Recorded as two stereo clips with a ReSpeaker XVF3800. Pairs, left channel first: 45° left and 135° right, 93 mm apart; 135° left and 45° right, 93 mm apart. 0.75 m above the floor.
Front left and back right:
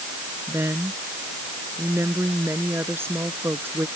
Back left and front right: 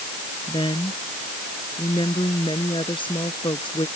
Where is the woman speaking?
160° left.